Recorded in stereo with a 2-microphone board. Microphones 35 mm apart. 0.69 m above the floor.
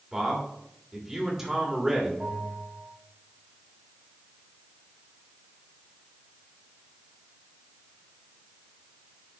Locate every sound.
0.1 s a man speaking: 10° right (ahead or behind), 2.5 m
2.2 s a bell: 55° right (ahead or behind), 3 m